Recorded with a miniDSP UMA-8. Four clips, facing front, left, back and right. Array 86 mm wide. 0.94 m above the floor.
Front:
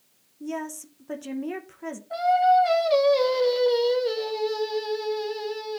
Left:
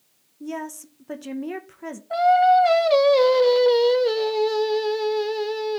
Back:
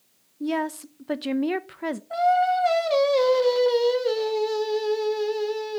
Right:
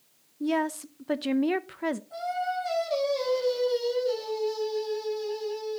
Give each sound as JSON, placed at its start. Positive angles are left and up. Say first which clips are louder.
{"t": 0.4, "sound": "a woman speaking", "louder": "right 5 dB, back 6 dB", "azimuth_deg": -140, "distance_m": 0.6}
{"t": 2.1, "sound": "singing", "louder": "left 15 dB, front 2 dB", "azimuth_deg": 100, "distance_m": 1.3}